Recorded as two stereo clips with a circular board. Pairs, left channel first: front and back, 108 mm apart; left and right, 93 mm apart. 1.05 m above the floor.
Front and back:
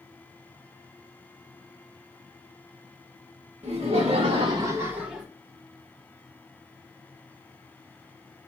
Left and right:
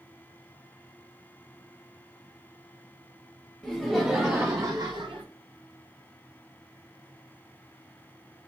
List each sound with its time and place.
3.6 s laughter: 175° left, 1.0 m; by 5.3 s 90° right, 0.7 m